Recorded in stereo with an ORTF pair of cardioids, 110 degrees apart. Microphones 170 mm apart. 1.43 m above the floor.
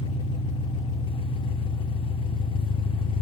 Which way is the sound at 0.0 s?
30° left.